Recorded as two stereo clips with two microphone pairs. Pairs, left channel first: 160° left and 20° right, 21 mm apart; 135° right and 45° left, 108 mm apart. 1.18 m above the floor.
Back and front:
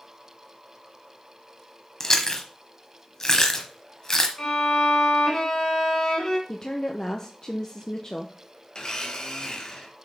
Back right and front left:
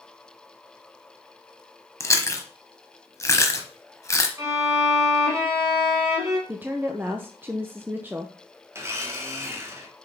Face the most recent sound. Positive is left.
turn(degrees=110)